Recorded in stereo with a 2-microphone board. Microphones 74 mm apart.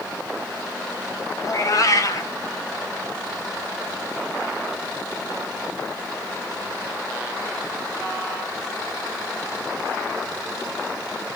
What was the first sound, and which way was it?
A cat meowing, 50° left (ahead or behind).